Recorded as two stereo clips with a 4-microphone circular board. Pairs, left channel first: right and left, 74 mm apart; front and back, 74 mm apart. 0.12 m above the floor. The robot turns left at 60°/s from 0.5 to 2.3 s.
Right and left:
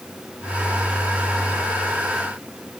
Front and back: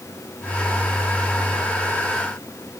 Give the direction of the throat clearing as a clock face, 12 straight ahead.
I don't hear throat clearing.